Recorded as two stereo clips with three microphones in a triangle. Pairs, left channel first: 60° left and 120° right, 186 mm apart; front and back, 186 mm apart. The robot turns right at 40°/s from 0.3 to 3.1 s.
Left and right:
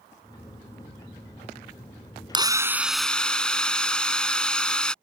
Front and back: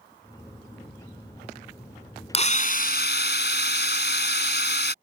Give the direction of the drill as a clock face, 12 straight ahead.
2 o'clock.